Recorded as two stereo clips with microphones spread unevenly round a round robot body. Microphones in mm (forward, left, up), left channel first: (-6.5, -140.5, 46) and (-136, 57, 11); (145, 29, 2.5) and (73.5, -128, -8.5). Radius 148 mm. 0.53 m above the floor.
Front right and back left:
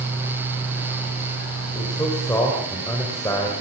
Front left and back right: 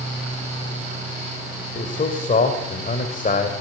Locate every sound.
1.8 s a man speaking: 25° left, 3 m